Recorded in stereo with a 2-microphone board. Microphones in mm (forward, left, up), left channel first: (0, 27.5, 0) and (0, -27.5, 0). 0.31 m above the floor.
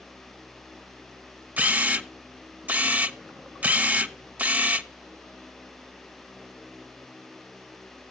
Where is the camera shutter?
30° right (ahead or behind), 0.6 m.